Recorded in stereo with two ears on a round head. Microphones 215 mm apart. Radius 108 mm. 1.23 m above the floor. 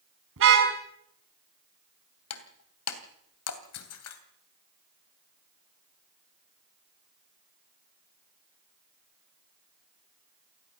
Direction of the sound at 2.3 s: 70° left (ahead or behind).